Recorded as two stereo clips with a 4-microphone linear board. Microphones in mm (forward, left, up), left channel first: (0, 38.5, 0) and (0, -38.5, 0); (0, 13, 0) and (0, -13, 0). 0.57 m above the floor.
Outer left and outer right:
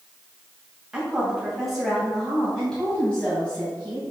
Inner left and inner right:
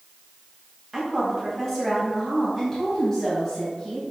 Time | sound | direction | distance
0.9 | a woman speaking | 10° right (ahead or behind) | 3 m